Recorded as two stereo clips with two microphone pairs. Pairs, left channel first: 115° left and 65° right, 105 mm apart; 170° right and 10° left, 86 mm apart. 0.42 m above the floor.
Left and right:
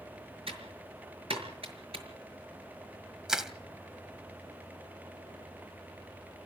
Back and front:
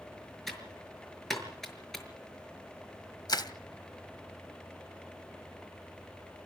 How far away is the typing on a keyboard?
About 6 m.